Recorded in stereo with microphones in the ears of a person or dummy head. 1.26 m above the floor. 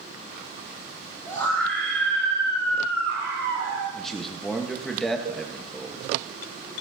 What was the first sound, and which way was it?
A scream, 15° left (ahead or behind).